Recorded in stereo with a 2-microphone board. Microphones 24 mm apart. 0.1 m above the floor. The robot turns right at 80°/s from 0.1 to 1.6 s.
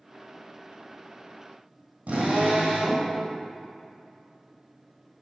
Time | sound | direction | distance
2.1 | a drill | 75° right (ahead or behind) | 2.5 m